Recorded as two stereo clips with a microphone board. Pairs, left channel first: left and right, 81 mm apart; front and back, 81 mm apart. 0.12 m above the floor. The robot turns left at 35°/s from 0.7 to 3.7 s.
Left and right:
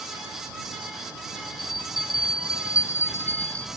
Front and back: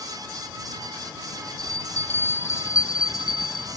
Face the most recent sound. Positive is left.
turn(degrees=10)